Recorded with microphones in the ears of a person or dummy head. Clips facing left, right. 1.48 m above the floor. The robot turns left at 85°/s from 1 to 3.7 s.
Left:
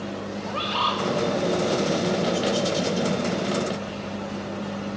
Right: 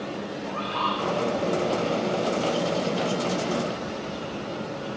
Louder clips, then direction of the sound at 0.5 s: Left 2 dB; 55° left (ahead or behind).